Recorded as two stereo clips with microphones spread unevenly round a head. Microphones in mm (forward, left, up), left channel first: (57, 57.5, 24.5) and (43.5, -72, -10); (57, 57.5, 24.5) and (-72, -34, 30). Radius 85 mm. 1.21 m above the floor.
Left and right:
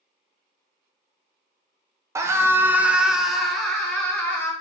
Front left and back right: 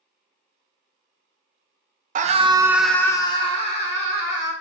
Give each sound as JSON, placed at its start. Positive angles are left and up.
{"t": 2.1, "sound": "a scream", "azimuth_deg": -140, "distance_m": 0.6}